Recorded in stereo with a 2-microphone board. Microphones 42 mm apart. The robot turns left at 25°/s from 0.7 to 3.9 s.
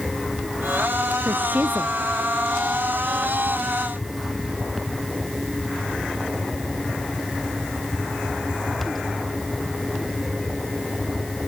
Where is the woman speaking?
55° right (ahead or behind); by 1.9 s 40° right (ahead or behind).